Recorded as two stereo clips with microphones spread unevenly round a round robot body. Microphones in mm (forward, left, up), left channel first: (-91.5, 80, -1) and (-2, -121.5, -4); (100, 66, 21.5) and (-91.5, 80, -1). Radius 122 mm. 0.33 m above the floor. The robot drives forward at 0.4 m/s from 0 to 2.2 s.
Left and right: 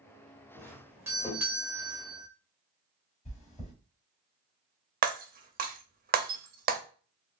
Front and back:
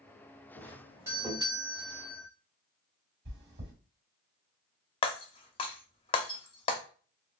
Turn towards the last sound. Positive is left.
turn(degrees=-65)